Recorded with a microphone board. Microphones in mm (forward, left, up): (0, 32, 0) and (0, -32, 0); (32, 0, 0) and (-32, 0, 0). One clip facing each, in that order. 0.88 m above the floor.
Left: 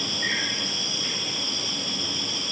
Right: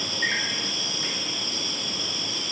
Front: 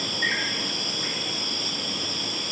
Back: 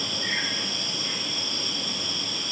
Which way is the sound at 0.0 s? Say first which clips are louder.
Right 1 dB, front 3 dB; 30° right.